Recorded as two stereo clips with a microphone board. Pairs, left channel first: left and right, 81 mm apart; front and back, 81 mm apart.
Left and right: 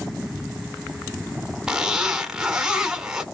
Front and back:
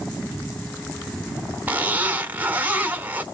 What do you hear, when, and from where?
1.7 s a zipper: 155° right, 1.1 m